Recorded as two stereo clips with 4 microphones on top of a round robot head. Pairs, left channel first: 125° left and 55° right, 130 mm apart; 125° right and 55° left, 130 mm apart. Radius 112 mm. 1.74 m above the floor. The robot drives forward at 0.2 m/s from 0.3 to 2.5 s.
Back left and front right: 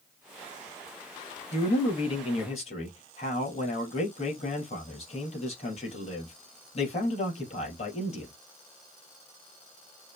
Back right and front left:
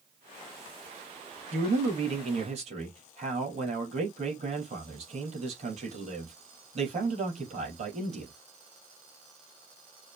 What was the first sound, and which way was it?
A man speaking, 90° left.